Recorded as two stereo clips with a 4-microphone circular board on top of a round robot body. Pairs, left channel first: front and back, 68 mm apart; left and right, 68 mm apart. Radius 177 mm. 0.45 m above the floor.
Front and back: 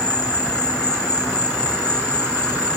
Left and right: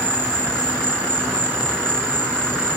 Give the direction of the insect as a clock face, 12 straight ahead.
1 o'clock.